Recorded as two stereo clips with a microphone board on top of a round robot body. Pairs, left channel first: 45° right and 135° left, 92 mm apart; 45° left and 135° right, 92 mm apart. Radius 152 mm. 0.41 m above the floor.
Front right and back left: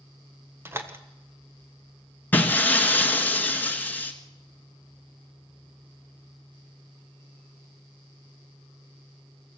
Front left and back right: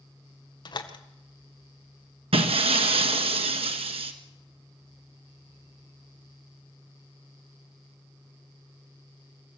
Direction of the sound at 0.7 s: 75° left.